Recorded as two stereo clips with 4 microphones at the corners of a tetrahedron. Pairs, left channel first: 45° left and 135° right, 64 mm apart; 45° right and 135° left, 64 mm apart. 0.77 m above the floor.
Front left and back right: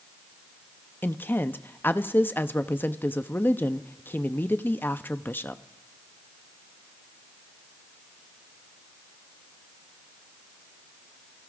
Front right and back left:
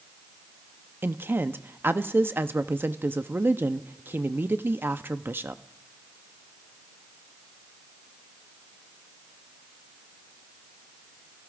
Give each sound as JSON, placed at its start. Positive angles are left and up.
{"t": 1.0, "sound": "a woman speaking", "azimuth_deg": 90, "distance_m": 0.6}